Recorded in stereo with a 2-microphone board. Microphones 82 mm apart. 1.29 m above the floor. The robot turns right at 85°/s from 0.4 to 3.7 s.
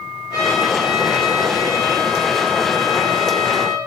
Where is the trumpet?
120° left, 3.5 m; by 3.8 s 40° left, 3.5 m.